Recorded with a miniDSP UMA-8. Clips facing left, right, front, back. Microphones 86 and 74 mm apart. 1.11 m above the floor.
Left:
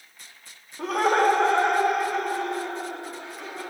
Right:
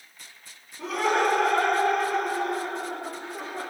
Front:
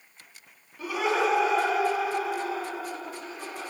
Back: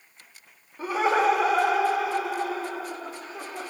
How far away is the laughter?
About 2.5 m.